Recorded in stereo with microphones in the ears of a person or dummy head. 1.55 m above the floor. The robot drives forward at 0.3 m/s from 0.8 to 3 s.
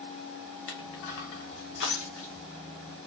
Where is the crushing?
65° left (ahead or behind), 0.7 m; by 2.5 s 50° left (ahead or behind), 0.8 m.